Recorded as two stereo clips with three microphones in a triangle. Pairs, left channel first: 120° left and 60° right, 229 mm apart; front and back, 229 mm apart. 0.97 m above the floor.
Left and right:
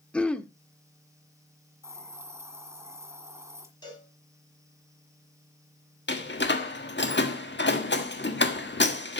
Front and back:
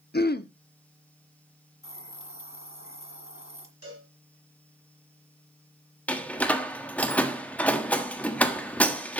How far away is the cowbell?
About 6.5 m.